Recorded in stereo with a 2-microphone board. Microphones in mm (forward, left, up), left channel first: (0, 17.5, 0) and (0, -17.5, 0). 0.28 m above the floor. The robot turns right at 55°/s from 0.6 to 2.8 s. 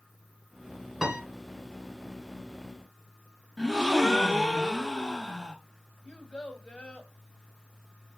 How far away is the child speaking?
About 1.2 m.